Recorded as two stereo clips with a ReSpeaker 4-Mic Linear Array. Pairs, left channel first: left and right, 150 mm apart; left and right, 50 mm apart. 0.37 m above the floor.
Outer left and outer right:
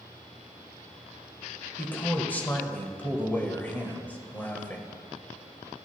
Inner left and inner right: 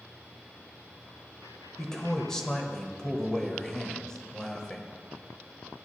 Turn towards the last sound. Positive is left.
turn(degrees=15)  # may be behind; listen again after turning